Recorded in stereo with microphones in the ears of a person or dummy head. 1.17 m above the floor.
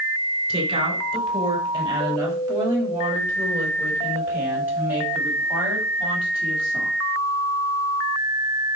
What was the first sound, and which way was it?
A woman speaking, 30° right (ahead or behind).